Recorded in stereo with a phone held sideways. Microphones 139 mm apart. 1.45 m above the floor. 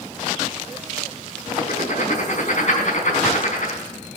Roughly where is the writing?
Left.